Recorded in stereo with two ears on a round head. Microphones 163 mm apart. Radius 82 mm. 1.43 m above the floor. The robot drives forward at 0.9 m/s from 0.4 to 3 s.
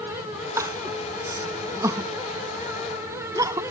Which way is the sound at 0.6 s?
15° right (ahead or behind).